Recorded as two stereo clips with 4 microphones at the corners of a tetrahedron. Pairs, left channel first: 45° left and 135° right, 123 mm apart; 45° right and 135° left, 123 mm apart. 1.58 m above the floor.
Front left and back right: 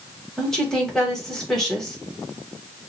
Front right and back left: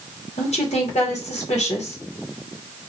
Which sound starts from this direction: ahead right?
A woman speaking, at 0.4 s.